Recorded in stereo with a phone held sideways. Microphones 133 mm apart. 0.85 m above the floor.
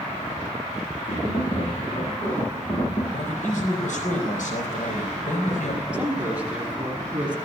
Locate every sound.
1.1 s tapping: 55° left (ahead or behind), 9.5 m
3.1 s a man speaking: 70° left (ahead or behind), 4.5 m
5.9 s a man speaking: 10° right (ahead or behind), 6 m